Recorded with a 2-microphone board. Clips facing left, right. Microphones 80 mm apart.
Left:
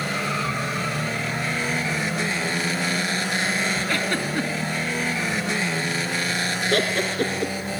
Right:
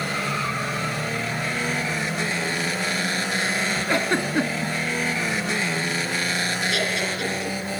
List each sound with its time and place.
3.9 s a giggle: 20° right (ahead or behind), 1.7 m
6.7 s laughter: 50° left (ahead or behind), 2.5 m